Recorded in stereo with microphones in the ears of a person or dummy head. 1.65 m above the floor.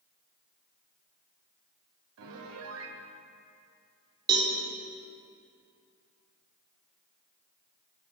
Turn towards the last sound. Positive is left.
turn(degrees=-20)  # may be behind; listen again after turning